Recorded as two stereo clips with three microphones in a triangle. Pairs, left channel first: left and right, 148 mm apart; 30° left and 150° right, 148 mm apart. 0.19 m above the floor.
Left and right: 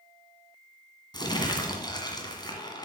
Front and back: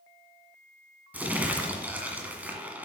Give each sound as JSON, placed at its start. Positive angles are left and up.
{"t": 1.1, "sound": "crumpling", "azimuth_deg": 135, "distance_m": 1.8}